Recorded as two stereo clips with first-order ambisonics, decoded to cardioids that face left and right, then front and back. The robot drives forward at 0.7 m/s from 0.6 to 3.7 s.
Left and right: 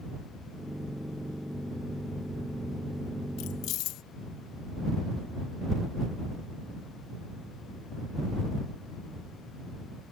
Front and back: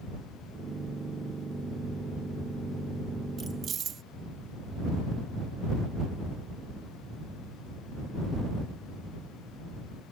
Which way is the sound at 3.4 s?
110° left.